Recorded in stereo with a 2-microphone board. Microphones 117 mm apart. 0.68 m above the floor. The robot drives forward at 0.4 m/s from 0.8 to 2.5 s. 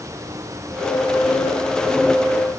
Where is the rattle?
No rattle in this recording.